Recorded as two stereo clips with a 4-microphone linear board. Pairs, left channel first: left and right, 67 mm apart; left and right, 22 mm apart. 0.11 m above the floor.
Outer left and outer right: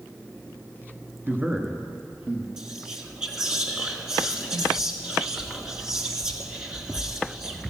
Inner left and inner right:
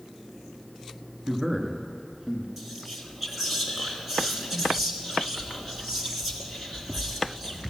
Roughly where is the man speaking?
Right.